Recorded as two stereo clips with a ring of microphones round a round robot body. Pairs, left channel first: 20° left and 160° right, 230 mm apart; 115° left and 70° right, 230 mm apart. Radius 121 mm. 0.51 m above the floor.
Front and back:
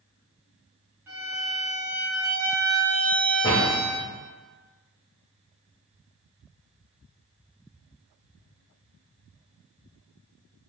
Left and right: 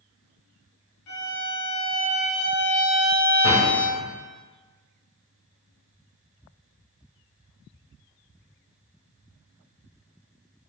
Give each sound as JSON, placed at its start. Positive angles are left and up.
{"t": 1.1, "sound": "a violin", "azimuth_deg": 125, "distance_m": 2.5}
{"t": 3.4, "sound": "a door slam", "azimuth_deg": 100, "distance_m": 2.0}